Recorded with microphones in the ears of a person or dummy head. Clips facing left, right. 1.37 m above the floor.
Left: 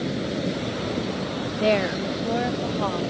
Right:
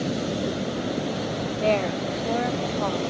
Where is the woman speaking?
20° left (ahead or behind); by 3.0 s 5° right (ahead or behind).